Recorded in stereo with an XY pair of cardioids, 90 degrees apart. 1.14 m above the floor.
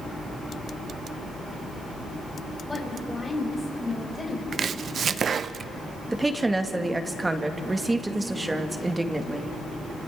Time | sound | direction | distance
2.7 | a woman speaking | 25° left | 5 m
4.5 | chopping | 55° right | 0.5 m
6.1 | a woman speaking | 20° right | 1.7 m